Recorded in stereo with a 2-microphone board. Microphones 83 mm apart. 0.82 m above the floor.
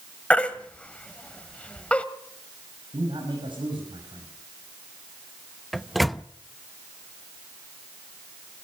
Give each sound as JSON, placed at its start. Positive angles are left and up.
{"t": 0.3, "sound": "a baby crying", "side_deg": 15, "distance_m": 1.3}
{"t": 2.9, "sound": "a man speaking", "side_deg": -70, "distance_m": 5.5}
{"t": 5.7, "sound": "a microwave", "side_deg": 0, "distance_m": 0.5}